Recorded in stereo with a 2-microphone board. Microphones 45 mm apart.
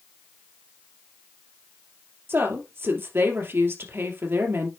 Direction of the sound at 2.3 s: 65° right (ahead or behind).